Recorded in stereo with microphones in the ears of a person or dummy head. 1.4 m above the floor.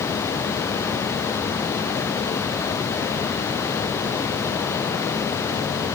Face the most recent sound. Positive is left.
No sound to turn to.